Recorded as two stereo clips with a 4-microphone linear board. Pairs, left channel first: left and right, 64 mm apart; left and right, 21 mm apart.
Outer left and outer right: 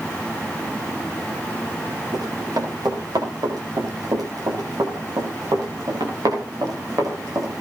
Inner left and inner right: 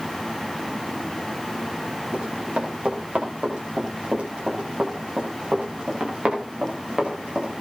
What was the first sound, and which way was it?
Running footsteps, 80° right.